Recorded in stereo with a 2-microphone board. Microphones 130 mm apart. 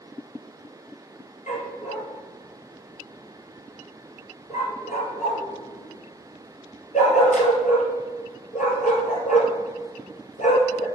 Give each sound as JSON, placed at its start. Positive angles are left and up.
{"t": 1.5, "sound": "a dog barking", "side_deg": 75, "distance_m": 2.0}